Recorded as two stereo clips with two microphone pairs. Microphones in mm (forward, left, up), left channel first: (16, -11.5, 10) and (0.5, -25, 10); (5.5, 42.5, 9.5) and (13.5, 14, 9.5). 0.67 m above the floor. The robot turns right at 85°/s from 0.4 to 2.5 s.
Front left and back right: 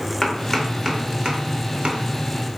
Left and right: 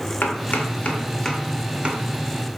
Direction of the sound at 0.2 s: 110° left.